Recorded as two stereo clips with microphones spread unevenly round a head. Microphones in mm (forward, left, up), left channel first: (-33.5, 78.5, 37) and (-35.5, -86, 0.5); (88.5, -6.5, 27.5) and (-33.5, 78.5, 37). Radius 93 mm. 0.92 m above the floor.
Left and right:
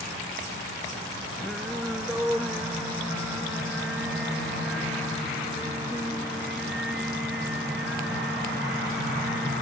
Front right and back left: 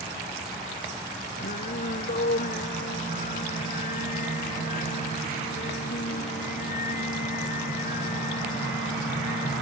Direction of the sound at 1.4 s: Straight ahead.